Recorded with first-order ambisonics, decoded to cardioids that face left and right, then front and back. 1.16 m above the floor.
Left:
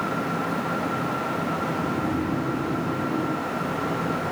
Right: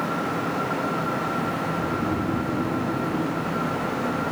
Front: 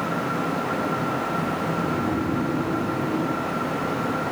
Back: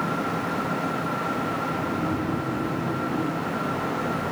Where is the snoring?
10° left, 0.6 m.